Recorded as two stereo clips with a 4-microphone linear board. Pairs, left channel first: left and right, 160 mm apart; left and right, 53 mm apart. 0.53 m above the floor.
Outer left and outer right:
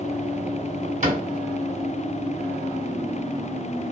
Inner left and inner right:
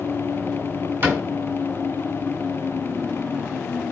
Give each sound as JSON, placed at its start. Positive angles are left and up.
{"t": 1.0, "sound": "a cupboard door", "side_deg": -50, "distance_m": 1.8}